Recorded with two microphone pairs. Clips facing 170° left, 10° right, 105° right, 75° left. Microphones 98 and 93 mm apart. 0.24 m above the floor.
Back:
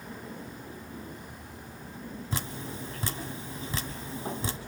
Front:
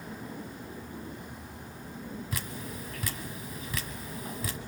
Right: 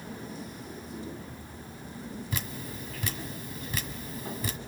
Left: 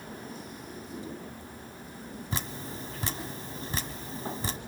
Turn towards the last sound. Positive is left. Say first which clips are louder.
# back 2 dB, left 1 dB
turn(degrees=120)